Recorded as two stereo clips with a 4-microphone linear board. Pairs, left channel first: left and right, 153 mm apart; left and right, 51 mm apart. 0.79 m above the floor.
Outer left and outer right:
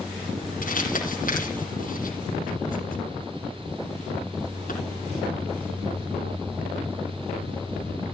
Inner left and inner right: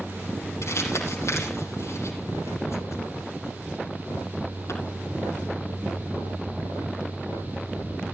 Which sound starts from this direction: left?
Crumpling, at 0.6 s.